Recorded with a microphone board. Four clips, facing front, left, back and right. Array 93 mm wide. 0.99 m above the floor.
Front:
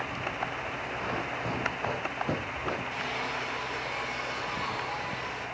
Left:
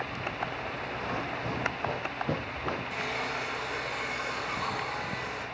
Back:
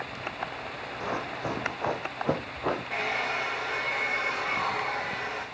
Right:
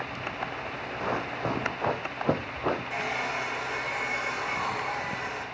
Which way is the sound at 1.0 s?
105° right.